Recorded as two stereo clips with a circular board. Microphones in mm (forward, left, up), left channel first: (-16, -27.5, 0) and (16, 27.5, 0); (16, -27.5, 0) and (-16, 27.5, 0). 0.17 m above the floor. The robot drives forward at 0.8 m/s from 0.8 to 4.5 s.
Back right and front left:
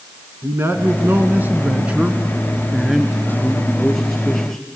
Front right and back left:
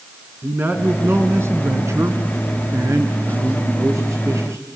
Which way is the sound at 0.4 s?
85° left.